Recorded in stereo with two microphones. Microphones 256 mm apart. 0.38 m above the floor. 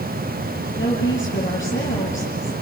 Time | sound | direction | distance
0.8 | a woman speaking | 50° left (ahead or behind) | 6.5 m